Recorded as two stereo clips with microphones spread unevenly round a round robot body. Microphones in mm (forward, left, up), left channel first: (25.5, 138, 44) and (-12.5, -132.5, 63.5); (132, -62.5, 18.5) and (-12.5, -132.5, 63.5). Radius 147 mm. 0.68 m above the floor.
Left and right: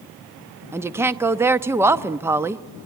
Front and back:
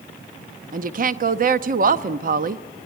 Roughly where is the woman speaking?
Behind.